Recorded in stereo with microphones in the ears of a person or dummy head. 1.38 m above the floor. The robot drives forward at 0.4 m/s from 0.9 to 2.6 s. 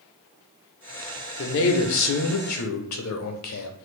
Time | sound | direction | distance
1.4 | a man speaking | 60° left (ahead or behind) | 0.8 m